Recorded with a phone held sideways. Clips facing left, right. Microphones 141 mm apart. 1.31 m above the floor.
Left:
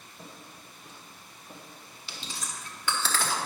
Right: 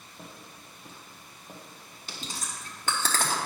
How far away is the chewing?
About 1.2 m.